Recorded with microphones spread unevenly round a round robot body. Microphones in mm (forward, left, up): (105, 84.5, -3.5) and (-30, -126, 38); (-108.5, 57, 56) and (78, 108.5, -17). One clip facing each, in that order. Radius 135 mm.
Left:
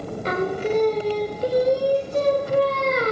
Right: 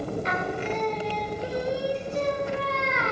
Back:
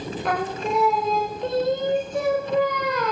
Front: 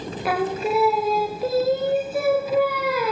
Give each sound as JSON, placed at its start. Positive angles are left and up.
{"t": 0.2, "sound": "singing", "azimuth_deg": 75, "distance_m": 0.6}